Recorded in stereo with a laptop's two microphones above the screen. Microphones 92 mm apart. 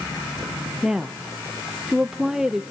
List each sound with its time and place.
0.8 s a woman speaking: 5° right (ahead or behind), 0.7 m